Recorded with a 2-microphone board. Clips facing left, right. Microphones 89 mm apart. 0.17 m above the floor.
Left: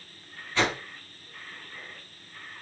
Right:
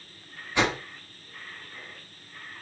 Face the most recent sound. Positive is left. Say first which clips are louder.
# right 1 dB
turn(degrees=-20)  # may be behind; listen again after turning